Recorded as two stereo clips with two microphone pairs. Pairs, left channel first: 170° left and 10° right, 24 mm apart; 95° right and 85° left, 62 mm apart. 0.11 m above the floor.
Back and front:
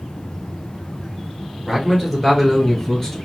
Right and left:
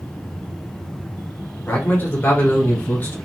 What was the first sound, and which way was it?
A man speaking, 90° right.